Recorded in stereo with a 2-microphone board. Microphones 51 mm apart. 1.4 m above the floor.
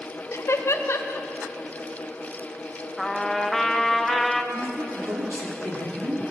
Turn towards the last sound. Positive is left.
turn(degrees=-80)